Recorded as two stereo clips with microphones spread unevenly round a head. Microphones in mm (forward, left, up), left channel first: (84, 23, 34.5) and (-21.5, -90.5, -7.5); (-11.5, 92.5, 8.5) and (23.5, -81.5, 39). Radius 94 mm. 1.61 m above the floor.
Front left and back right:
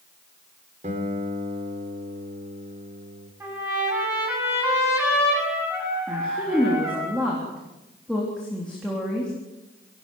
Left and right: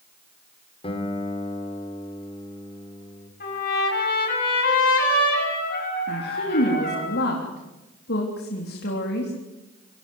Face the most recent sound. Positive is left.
turn(degrees=135)